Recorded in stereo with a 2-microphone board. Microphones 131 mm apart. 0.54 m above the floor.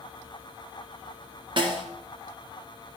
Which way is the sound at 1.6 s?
40° right (ahead or behind).